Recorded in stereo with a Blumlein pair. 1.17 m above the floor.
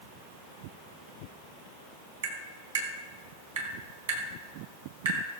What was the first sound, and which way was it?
Tapping, 60° right.